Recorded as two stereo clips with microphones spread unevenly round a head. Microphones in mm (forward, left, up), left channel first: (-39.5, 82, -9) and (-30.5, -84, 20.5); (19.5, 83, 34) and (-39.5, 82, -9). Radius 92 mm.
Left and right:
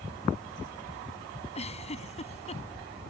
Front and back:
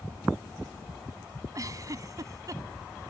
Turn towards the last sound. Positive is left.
turn(degrees=145)